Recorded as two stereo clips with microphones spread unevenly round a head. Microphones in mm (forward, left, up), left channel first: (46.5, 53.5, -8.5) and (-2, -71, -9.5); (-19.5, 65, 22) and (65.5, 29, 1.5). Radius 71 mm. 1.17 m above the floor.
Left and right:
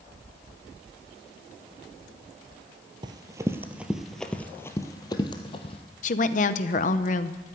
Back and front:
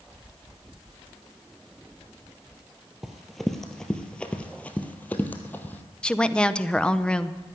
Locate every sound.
3.0 s running footsteps: 130° right, 1.3 m; by 5.8 s 105° left, 1.8 m
6.0 s a woman speaking: 70° left, 0.8 m